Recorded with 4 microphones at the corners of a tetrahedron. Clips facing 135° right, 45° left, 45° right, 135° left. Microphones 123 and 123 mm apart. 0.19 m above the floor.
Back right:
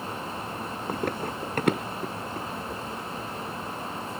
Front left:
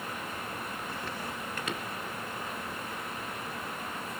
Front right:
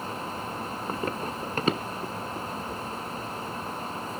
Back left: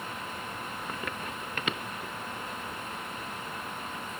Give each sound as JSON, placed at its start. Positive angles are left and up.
{"t": 0.9, "sound": "running footsteps", "azimuth_deg": -100, "distance_m": 0.5}